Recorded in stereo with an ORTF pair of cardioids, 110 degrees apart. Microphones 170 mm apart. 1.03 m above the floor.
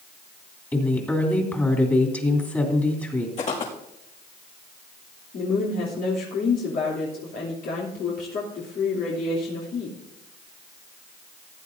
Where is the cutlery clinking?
I don't hear cutlery clinking.